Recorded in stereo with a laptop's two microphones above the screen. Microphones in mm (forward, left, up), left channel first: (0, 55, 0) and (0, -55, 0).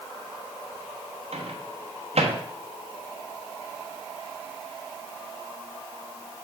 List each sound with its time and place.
1.3 s a microwave: 80° right, 1.2 m